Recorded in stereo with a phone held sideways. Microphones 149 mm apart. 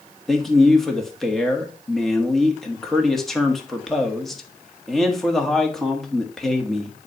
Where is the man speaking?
Centre (ahead or behind), 1.5 m.